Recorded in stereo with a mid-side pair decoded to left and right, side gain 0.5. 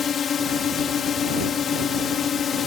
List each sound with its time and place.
0.0 s a drone: 45° left